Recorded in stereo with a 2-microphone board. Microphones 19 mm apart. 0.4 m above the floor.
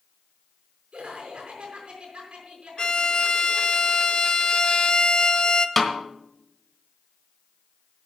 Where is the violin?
45° left (ahead or behind), 0.5 m.